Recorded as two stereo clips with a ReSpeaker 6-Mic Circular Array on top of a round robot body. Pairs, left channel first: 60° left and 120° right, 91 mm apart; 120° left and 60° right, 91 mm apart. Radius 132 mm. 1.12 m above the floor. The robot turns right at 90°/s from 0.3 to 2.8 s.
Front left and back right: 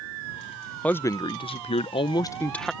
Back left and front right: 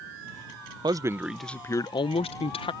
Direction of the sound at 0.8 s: 20° right.